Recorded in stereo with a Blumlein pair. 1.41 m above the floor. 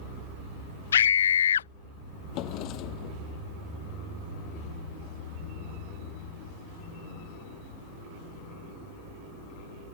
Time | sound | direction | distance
0.9 | a scream | 65° left | ?
2.3 | a drawer | 40° left | ?